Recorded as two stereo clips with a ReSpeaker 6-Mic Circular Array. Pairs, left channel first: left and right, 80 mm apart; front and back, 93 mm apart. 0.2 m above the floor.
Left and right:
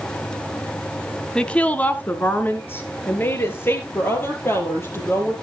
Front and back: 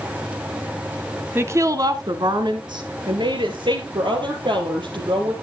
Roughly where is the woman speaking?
Behind.